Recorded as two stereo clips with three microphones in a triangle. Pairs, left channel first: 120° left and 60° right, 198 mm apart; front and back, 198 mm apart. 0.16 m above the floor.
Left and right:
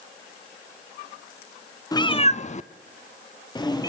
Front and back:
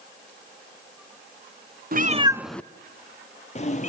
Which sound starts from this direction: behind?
A cat meowing, at 1.9 s.